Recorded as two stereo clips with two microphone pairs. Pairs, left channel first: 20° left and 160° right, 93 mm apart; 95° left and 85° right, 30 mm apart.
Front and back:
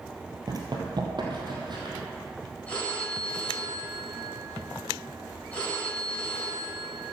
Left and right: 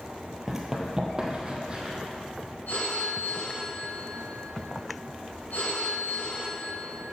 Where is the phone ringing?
95° left, 4 m.